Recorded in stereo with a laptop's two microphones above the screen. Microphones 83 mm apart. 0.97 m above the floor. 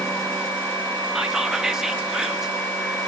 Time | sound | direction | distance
1.1 | whispering | 5° right (ahead or behind) | 0.9 m